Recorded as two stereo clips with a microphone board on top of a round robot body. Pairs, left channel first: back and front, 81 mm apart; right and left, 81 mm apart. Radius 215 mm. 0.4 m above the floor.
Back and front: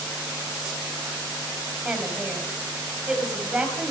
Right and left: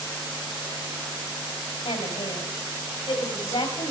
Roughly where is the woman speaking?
Right.